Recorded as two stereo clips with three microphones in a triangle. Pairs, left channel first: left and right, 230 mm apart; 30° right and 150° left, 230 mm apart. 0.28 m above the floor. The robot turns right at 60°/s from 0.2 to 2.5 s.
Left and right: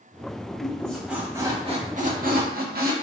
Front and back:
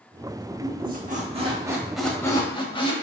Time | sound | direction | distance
0.6 | a squeak | 155° left | 0.5 m